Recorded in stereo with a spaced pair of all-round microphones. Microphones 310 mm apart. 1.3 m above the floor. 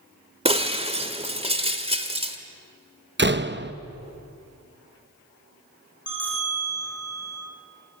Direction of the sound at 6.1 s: 5° right (ahead or behind).